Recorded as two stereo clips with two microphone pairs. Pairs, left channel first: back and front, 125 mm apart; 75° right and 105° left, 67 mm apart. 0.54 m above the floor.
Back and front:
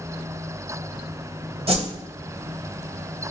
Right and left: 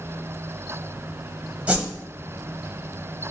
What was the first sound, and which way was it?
A whoosh, 35° left.